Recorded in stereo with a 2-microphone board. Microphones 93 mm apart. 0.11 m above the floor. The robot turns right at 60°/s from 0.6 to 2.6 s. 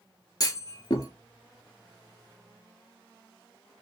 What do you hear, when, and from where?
0.4 s a clunk: 45° left (ahead or behind), 0.6 m